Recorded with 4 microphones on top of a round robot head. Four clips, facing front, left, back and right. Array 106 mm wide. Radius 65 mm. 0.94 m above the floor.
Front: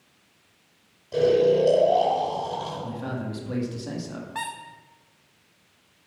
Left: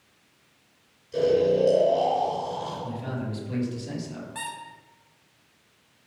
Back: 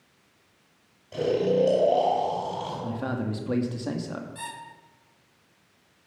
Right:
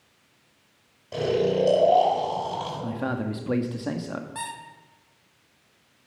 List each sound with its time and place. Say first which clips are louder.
1.1 s snoring: left 2 dB, front 4 dB; 75° right, 8 m
2.8 s a man speaking: right 4 dB, back 2 dB; 110° right, 2 m
4.3 s a squeak: right 1 dB, front 6 dB; 15° right, 2.5 m